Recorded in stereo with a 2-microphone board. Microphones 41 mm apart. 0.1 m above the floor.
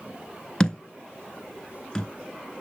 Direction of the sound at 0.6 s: 15° left (ahead or behind).